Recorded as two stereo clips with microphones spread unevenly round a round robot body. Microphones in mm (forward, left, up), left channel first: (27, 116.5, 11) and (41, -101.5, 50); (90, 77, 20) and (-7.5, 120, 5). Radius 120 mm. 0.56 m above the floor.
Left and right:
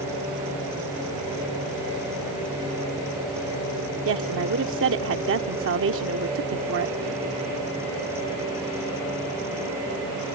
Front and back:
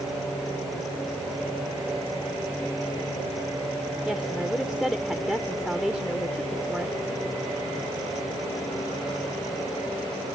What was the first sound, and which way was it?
A woman speaking, 115° right.